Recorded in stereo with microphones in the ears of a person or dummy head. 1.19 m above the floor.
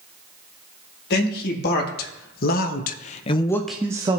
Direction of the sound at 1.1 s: 55° left (ahead or behind).